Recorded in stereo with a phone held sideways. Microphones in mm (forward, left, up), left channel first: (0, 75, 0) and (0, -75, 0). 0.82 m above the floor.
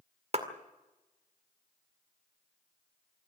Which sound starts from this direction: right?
A clap, at 0.3 s.